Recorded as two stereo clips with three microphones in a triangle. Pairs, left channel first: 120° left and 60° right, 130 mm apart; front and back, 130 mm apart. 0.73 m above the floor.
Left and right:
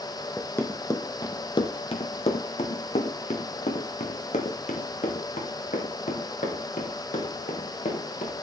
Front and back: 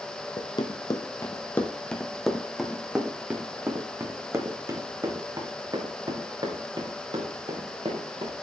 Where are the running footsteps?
45° left, 1.4 m; by 8.3 s 130° left, 4 m.